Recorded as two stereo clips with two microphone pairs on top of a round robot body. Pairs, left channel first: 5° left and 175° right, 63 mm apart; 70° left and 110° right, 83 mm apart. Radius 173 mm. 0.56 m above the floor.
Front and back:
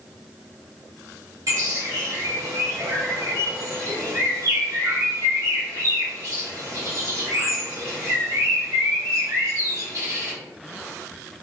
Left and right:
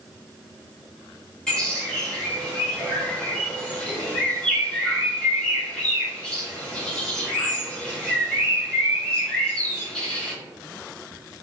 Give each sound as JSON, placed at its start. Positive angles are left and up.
{"t": 1.5, "sound": "a bird", "azimuth_deg": 150, "distance_m": 0.8}